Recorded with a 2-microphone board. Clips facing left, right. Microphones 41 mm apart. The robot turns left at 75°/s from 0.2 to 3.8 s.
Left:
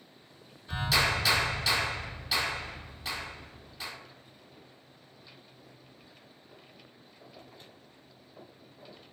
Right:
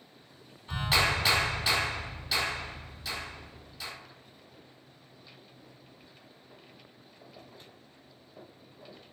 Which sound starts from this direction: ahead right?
A clap, at 0.7 s.